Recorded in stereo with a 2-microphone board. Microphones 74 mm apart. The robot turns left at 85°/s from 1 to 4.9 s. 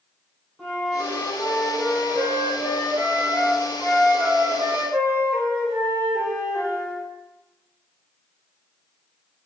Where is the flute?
175° left, 1.5 m; by 7.0 s 155° right, 1.5 m.